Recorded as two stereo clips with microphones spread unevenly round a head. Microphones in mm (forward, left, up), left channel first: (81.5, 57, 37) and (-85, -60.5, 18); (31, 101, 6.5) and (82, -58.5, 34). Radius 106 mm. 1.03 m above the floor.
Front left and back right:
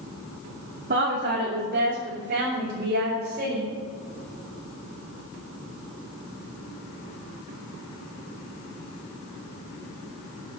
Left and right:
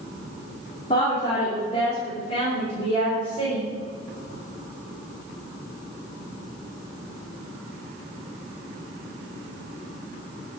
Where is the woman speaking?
170° left, 3 m; by 3.7 s 165° left, 4.5 m.